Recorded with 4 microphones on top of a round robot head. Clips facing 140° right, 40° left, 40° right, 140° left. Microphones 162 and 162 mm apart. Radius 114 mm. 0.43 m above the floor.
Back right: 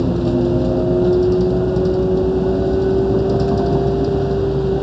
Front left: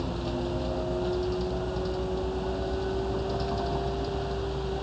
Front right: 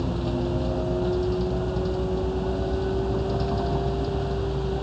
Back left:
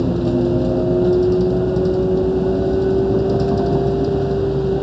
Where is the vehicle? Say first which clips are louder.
Back right 15 dB, back left 10 dB; straight behind.